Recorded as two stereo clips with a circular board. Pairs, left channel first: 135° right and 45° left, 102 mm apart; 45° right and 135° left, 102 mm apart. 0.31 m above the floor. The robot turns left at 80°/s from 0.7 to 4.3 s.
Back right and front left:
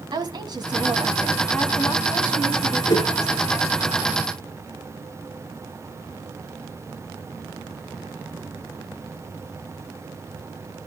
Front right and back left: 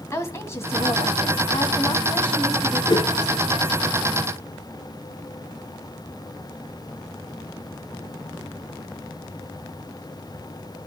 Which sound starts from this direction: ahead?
A woman speaking, at 0.1 s.